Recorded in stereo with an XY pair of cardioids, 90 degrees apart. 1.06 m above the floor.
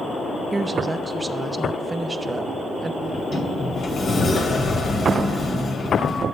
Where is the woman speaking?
25° right, 0.7 m.